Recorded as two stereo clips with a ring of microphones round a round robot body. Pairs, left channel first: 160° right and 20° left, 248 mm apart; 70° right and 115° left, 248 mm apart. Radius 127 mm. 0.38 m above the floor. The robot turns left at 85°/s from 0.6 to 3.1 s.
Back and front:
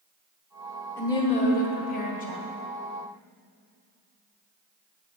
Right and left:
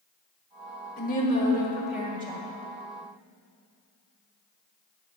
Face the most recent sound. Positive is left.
turn(degrees=95)